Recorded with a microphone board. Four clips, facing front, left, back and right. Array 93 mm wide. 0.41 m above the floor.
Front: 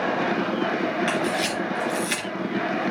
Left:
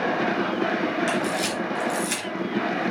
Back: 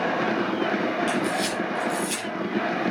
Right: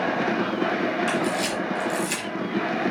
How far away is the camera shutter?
About 3 m.